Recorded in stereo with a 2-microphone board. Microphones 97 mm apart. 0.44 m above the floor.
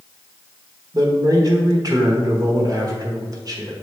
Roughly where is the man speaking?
Right.